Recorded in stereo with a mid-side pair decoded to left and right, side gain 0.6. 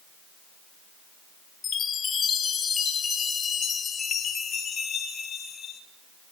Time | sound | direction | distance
1.6 | a chime | 35° left | 1.0 m